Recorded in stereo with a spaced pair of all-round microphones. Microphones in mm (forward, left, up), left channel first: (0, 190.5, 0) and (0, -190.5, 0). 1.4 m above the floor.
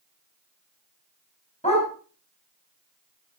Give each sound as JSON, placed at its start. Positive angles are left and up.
{"t": 1.6, "sound": "a dog barking", "side_deg": 20, "distance_m": 4.5}